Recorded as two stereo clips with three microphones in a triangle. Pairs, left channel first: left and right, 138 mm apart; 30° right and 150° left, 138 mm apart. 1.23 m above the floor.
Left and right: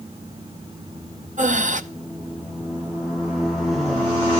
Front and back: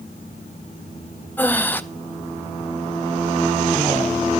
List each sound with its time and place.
1.4 s breathing: 105° right, 0.7 m